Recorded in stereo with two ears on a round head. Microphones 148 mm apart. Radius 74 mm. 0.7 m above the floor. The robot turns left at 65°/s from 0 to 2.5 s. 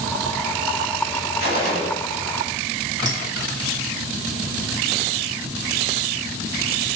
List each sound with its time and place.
1.4 s a gunshot: 80° left, 1.8 m; by 1.9 s 45° left, 1.8 m
3.0 s a bell: 25° right (ahead or behind), 1.3 m